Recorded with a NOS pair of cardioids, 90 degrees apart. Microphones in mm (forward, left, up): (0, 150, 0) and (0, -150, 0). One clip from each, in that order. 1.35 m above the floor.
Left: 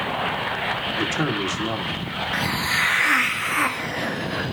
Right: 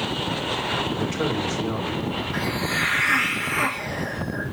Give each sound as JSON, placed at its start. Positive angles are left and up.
{"t": 1.0, "sound": "a man speaking", "azimuth_deg": 55, "distance_m": 3.5}
{"t": 2.3, "sound": "a hiss", "azimuth_deg": 50, "distance_m": 1.7}